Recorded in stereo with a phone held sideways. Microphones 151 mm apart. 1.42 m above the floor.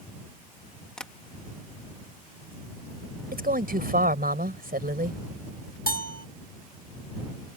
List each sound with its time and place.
1.0 s tapping: 5° left (ahead or behind)
3.3 s a woman speaking: 75° right (ahead or behind)
5.9 s a bell: 85° left